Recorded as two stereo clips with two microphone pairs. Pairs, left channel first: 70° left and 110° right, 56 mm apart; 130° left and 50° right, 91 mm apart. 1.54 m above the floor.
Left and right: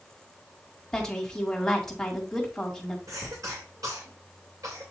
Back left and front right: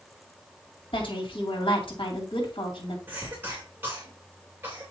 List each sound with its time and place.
0.9 s a woman speaking: 150° left, 2 m
3.1 s a cough: 115° right, 2.5 m